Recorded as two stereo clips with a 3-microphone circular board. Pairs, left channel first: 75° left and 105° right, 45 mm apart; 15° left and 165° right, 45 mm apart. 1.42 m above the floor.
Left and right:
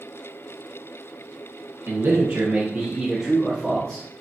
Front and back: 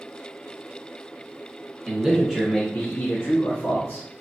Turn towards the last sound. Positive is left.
turn(degrees=15)